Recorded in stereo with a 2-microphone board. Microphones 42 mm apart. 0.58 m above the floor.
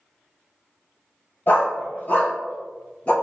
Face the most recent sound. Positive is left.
turn(degrees=35)  # may be behind; listen again after turning